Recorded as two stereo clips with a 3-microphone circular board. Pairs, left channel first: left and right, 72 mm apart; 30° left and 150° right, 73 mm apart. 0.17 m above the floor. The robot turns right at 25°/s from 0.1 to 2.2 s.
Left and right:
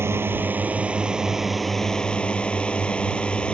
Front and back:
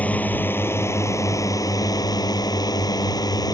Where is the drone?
35° right; by 3.5 s 15° left.